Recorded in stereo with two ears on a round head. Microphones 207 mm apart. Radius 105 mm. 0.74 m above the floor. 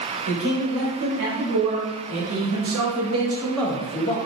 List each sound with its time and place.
0.3 s a man speaking: 75° right (ahead or behind), 1.7 m; by 4.2 s 35° left (ahead or behind), 0.6 m